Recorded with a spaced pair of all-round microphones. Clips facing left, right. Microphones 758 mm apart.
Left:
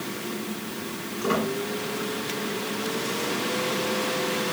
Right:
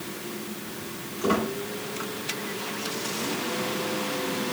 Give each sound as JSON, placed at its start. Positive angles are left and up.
{"t": 1.2, "sound": "a squeak", "side_deg": -65, "distance_m": 3.0}